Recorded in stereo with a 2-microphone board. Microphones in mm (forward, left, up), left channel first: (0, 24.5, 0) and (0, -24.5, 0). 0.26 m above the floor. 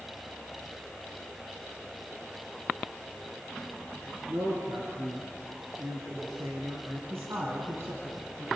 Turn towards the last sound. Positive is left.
turn(degrees=-60)  # may be behind; listen again after turning